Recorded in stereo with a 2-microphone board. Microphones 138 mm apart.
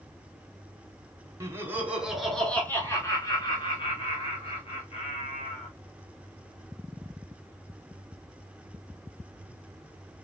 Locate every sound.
1.4 s laughter: 20° right (ahead or behind), 1.2 m; by 5.7 s 55° left (ahead or behind), 2.5 m